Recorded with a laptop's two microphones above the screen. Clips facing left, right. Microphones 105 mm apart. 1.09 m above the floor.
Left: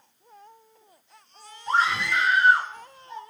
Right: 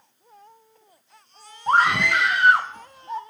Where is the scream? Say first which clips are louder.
Right 5 dB; 50° right (ahead or behind), 1.1 m; by 3.2 s 80° right, 2.5 m.